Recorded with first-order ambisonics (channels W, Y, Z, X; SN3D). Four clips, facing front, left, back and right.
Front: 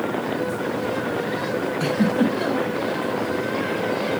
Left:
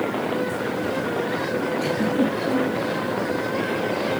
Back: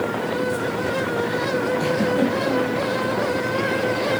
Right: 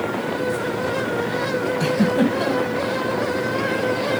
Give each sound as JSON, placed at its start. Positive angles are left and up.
{"t": 1.8, "sound": "a giggle", "azimuth_deg": -90, "distance_m": 2.5}